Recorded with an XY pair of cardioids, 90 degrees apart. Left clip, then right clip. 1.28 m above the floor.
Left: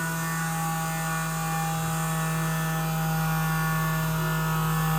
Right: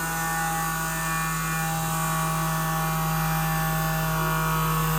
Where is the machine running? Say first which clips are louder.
Right 3 dB; 65° right, 0.8 m.